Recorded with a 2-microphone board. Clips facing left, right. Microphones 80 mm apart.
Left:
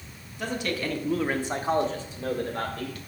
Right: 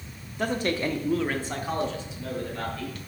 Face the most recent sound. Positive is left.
turn(degrees=45)  # may be behind; listen again after turning